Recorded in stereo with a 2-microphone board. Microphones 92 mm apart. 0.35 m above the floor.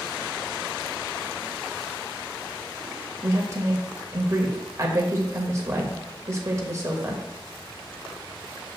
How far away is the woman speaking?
About 1.2 m.